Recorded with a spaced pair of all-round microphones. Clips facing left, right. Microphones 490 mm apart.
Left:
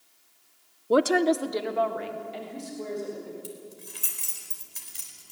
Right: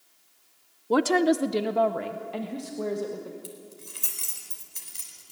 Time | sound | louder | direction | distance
0.9 | a woman speaking | even | 5° right (ahead or behind) | 0.6 m
3.4 | keys jangling | left 2 dB | 10° left (ahead or behind) | 4 m